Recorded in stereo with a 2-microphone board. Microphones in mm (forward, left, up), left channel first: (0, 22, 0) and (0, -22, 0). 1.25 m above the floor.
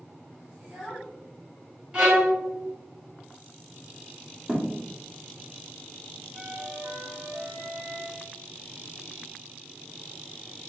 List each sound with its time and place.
0.6 s a child speaking: 15° right (ahead or behind), 1.6 m
1.9 s a violin: 20° right (ahead or behind), 1.5 m
4.5 s a thud: 15° right (ahead or behind), 1.1 m
6.3 s a flute: 45° right (ahead or behind), 0.6 m